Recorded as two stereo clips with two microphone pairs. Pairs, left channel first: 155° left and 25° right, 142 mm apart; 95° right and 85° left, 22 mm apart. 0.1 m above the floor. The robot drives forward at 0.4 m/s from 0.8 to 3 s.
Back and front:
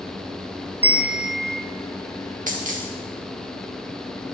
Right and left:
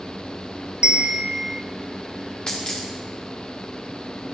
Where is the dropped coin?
45° right, 3.5 m; by 2.8 s 50° right, 3.5 m.